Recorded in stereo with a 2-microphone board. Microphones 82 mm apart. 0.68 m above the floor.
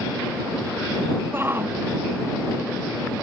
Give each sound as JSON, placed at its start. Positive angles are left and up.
{"t": 1.3, "sound": "a shout", "side_deg": -25}